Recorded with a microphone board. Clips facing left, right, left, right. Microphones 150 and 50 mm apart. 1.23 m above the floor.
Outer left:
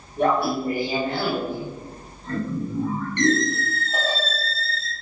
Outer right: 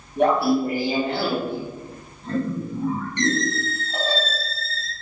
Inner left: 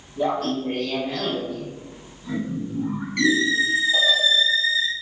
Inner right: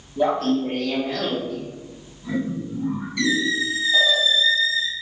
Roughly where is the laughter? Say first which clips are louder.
Outer right 3 dB, inner right 3 dB; right.